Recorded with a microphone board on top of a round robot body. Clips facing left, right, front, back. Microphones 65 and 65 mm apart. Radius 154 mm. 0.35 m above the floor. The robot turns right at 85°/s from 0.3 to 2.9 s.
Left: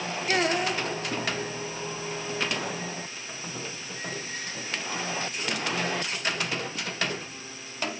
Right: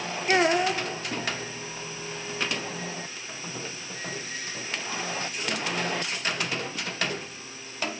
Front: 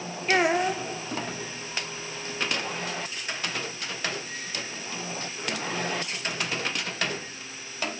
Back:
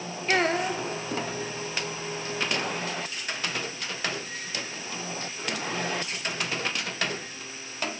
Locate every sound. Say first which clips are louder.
0.3 s a child speaking: right 4 dB, front 2 dB; 75° right, 0.8 m; by 0.8 s 30° right, 0.8 m